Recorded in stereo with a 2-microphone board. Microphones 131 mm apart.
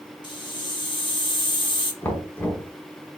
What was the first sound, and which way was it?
A hiss, 35° left (ahead or behind).